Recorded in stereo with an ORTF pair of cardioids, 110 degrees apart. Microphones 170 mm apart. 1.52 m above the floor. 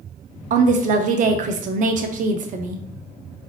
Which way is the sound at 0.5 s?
55° right.